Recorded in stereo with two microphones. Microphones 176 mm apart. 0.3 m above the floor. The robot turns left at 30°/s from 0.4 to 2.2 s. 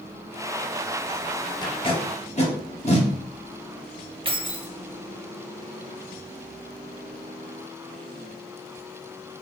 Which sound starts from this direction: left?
Tape being pulled, at 1.6 s.